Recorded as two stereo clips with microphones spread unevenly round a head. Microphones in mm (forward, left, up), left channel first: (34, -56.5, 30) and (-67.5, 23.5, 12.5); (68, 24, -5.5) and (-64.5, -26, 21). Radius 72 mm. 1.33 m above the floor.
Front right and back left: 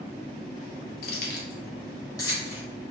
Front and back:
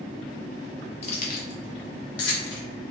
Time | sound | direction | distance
1.0 | keys jangling | 30° right | 0.7 m